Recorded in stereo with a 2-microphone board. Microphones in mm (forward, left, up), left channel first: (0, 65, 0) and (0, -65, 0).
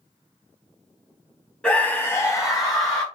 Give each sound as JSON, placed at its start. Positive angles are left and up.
{"t": 1.6, "sound": "a scream", "side_deg": 10, "distance_m": 1.0}